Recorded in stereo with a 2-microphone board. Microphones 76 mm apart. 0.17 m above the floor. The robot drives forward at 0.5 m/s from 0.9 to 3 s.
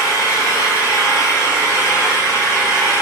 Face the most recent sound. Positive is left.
turn(degrees=30)  # may be behind; listen again after turning